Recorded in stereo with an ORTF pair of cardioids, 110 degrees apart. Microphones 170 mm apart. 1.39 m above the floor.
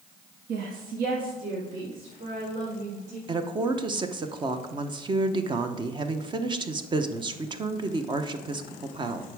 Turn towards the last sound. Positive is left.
turn(degrees=-30)